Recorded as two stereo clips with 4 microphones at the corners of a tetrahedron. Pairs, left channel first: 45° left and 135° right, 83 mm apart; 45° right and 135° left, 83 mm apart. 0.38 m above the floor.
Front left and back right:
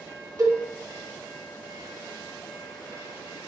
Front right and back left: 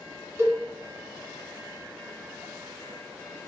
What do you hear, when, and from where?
0.4 s a cowbell: 170° right, 2 m